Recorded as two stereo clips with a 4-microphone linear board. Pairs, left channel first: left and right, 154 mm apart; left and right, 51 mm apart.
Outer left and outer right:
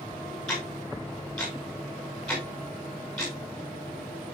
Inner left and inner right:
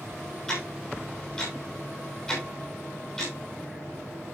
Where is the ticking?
5° left (ahead or behind), 5.5 m.